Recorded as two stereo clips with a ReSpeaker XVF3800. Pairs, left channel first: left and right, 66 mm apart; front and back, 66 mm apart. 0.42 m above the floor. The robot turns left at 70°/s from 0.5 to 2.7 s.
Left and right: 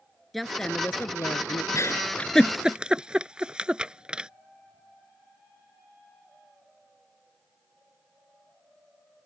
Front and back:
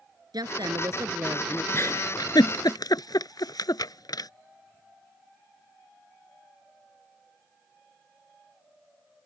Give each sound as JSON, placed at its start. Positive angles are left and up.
{"t": 0.3, "sound": "a woman speaking", "azimuth_deg": 180}
{"t": 1.7, "sound": "a giggle", "azimuth_deg": 55}